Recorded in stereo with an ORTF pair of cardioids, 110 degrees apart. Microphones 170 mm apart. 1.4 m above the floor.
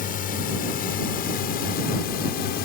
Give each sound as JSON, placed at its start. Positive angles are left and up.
{"t": 0.0, "sound": "a drone", "azimuth_deg": 55}